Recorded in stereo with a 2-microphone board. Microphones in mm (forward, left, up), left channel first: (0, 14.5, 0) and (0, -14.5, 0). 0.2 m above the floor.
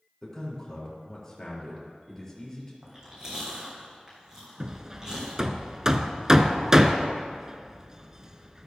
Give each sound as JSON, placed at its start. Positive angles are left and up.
{"t": 0.2, "sound": "a man speaking", "side_deg": 15, "distance_m": 3.5}
{"t": 2.8, "sound": "chewing", "side_deg": -25, "distance_m": 4.0}
{"t": 4.6, "sound": "hammering", "side_deg": -20, "distance_m": 0.5}